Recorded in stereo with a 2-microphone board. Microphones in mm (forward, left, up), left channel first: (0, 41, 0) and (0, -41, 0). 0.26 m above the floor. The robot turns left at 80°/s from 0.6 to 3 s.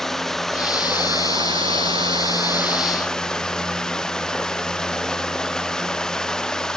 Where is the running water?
5° left; by 6.8 s 170° left.